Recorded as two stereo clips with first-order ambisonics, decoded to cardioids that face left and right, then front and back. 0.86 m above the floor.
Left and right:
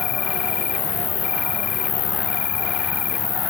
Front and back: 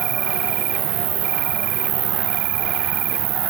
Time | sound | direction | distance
0.0 | an insect | 145° left | ?